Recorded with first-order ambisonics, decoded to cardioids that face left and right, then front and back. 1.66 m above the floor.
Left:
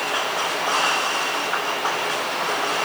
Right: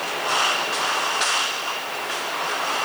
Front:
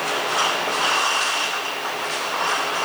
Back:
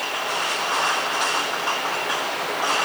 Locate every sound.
Only background noise.